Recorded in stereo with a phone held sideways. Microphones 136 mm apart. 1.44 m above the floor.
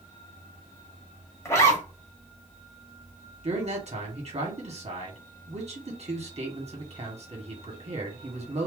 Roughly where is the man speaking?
Right.